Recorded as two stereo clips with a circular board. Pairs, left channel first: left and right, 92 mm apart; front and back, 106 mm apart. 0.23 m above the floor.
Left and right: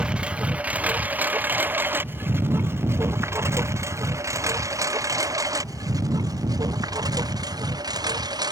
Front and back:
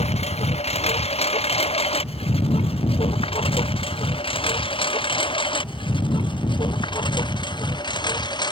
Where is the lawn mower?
10° right; by 8.5 s 45° right.